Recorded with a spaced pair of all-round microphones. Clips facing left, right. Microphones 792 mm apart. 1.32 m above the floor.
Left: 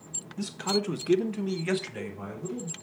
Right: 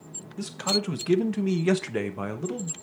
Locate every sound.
0.4 s a man speaking: 5° right (ahead or behind), 1.0 m; by 2.7 s 80° right, 1.4 m